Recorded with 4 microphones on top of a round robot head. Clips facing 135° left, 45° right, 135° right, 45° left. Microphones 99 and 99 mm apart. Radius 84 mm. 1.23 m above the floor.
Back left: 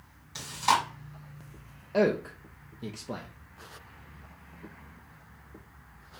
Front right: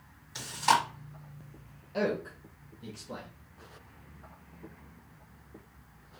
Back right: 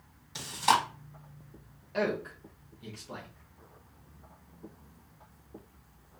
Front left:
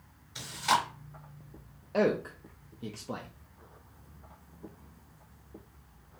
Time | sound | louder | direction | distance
0.3 | chewing | even, back right 2 dB | 140° right | 1.8 m
1.9 | a man speaking | back left 6 dB, front left 4 dB | 100° left | 0.5 m